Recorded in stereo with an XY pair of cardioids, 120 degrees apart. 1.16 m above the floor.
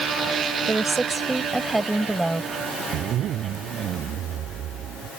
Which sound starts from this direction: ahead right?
A zipper, at 2.9 s.